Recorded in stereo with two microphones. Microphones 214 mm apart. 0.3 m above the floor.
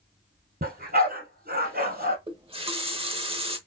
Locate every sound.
0.6 s a dog barking: 45° right (ahead or behind), 2 m
2.3 s a running tap: 25° right (ahead or behind), 0.9 m